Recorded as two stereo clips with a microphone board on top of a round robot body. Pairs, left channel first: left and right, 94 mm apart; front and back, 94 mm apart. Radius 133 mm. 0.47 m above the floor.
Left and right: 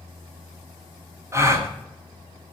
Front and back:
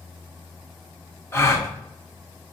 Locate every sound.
1.3 s a gasp: 45° right, 1.6 m